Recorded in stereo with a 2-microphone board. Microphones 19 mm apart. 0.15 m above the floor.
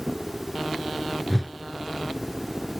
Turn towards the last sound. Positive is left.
turn(degrees=0)  # may be behind; listen again after turning